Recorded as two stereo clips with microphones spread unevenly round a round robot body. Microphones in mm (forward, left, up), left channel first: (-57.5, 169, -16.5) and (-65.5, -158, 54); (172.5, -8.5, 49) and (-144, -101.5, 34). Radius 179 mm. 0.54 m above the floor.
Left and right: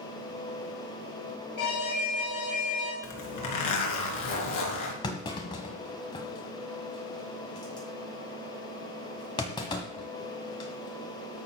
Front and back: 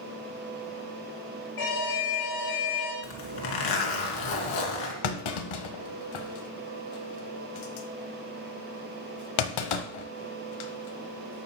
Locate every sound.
1.6 s an alarm: 50° left, 8.5 m
3.0 s a zipper: 50° left, 3 m
5.0 s a clunk: 10° left, 1.4 m